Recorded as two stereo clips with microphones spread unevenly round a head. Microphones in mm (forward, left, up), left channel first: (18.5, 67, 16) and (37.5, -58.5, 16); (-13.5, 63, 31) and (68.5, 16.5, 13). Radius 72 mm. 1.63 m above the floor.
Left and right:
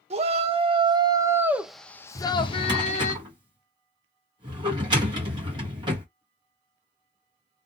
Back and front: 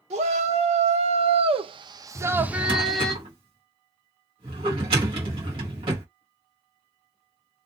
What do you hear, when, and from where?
0.1 s a shout: 45° right, 1.1 m; by 3.1 s 70° left, 0.9 m
2.1 s a drawer: 55° right, 1.1 m